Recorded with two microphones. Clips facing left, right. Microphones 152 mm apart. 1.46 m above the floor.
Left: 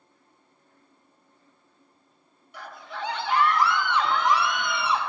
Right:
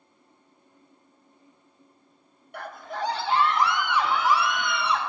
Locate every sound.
2.5 s a scream: 60° right (ahead or behind), 0.9 m; by 5.0 s 5° left (ahead or behind), 1.7 m